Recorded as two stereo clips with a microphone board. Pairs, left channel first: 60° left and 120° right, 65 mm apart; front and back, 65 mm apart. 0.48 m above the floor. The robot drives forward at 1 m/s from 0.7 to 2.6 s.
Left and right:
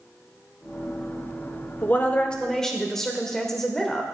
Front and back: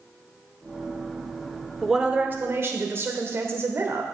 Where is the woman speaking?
95° left, 0.9 m; by 4.0 s 145° left, 1.2 m.